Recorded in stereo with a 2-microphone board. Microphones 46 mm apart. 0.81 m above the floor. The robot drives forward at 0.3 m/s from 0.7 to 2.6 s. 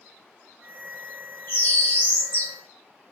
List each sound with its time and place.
1.5 s a bird: 50° left (ahead or behind), 1.6 m; by 2.5 s 45° left (ahead or behind), 1.8 m